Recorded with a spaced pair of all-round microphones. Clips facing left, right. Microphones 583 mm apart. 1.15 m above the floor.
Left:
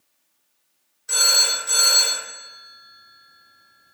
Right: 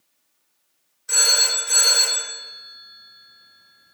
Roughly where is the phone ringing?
Centre.